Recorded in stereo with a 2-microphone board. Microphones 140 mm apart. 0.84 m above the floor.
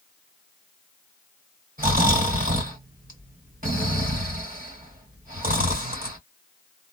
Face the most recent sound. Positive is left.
turn(degrees=-80)